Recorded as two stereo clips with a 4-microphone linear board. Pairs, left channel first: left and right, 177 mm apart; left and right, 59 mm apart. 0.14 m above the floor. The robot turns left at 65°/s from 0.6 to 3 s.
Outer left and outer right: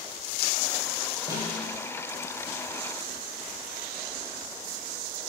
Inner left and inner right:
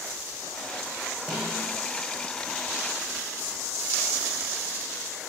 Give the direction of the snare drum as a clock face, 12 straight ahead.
11 o'clock.